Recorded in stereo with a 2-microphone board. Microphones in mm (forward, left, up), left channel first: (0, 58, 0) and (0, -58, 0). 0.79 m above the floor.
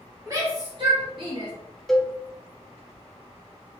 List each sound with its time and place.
0.3 s a shout: 30° right (ahead or behind), 1.3 m; by 1.5 s 40° right (ahead or behind), 1.5 m
1.9 s a cowbell: centre (ahead or behind), 0.7 m